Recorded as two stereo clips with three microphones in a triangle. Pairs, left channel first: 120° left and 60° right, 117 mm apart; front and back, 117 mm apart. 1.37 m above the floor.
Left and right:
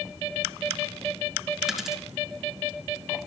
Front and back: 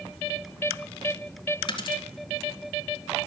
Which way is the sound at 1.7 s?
30° left.